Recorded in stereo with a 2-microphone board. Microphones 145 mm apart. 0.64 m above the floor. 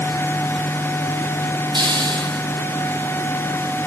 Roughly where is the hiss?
Right.